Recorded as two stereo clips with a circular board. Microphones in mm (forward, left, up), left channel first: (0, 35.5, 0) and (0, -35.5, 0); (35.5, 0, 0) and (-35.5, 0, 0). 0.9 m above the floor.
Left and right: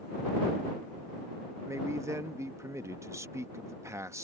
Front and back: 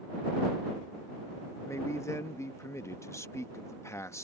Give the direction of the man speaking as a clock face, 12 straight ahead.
2 o'clock.